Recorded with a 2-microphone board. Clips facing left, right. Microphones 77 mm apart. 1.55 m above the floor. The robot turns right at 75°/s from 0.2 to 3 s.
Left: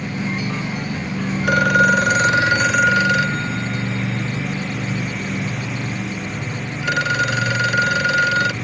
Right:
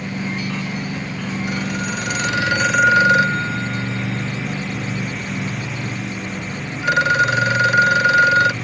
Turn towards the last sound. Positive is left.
turn(degrees=-160)